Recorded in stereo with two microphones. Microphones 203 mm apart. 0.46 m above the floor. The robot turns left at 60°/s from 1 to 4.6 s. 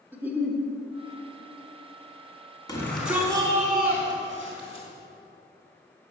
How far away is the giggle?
About 1.3 m.